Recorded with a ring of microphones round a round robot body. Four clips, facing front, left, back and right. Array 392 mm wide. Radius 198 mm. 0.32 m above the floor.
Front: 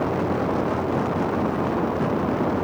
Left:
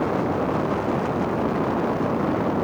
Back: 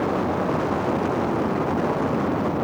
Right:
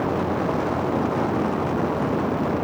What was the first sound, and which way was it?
Only background noise.